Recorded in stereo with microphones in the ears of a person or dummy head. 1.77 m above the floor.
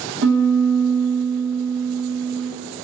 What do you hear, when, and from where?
0.2 s a piano: 55° right (ahead or behind), 0.8 m